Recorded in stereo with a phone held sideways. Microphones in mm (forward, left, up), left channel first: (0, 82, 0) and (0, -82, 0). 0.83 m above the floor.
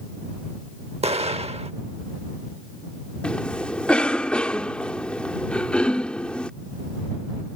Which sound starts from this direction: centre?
A cough, at 3.2 s.